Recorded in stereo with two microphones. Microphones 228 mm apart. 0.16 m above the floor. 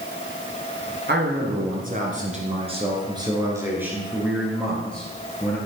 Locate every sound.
1.1 s a man speaking: 50° right (ahead or behind), 2 m; by 5.6 s 10° left (ahead or behind), 2.5 m